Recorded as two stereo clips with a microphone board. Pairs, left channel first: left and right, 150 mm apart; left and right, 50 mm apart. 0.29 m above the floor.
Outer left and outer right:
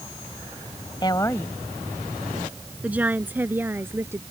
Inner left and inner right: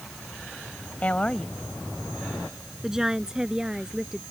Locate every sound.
1.0 s a woman speaking: 30° left (ahead or behind); by 4.2 s 15° right (ahead or behind)